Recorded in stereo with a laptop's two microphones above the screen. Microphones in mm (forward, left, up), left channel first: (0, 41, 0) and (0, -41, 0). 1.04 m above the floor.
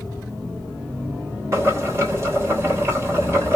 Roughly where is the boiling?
Right.